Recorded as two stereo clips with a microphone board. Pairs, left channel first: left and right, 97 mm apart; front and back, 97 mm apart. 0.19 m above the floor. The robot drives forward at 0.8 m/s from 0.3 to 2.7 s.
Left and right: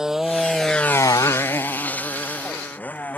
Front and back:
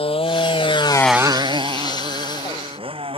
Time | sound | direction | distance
0.0 | a motorcycle | 5° right | ?